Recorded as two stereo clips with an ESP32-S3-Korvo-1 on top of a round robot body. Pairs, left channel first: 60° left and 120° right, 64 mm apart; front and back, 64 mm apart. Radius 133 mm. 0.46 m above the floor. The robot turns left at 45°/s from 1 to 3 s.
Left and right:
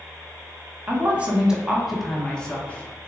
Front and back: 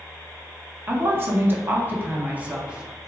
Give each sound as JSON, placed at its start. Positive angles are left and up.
{"t": 0.9, "sound": "a woman speaking", "azimuth_deg": -165, "distance_m": 0.9}